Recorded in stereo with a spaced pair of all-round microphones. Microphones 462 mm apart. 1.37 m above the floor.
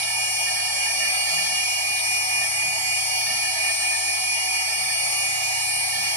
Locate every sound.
0.0 s a machine running: 75° right (ahead or behind), 1.2 m